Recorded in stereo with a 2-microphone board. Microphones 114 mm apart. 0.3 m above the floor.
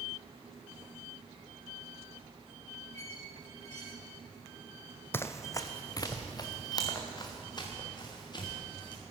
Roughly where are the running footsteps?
Left.